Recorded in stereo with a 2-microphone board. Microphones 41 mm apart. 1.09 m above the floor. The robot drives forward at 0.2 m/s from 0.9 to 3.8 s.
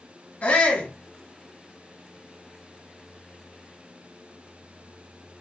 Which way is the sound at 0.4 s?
35° left (ahead or behind).